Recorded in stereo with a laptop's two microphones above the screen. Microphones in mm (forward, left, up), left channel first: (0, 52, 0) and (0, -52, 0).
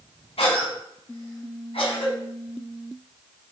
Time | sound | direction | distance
0.4 | a cough | 70° left (ahead or behind) | 3.5 m